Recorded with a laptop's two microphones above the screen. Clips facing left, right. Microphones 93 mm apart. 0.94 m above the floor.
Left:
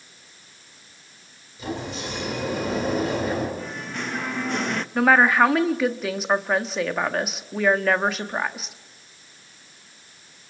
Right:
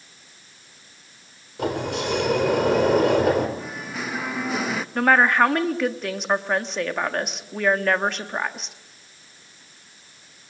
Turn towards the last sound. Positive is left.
turn(degrees=5)  # may be behind; listen again after turning